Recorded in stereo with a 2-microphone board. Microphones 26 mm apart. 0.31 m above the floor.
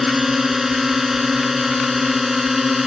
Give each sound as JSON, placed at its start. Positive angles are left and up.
{"t": 0.0, "sound": "a drone", "side_deg": -10}